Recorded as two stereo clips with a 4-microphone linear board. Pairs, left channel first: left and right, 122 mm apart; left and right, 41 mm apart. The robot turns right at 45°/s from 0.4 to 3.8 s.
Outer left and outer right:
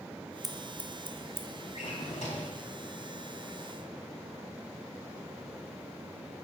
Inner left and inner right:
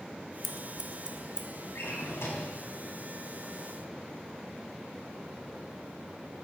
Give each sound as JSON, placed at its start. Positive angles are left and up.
{"t": 0.4, "sound": "scissors", "side_deg": -5, "distance_m": 0.7}
{"t": 1.8, "sound": "a drawer", "azimuth_deg": 70, "distance_m": 1.7}